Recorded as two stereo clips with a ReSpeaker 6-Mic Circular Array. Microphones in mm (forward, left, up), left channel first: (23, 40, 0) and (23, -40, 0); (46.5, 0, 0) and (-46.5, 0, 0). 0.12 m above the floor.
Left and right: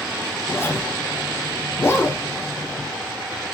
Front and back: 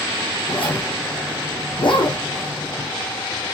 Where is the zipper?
30° left, 5 m.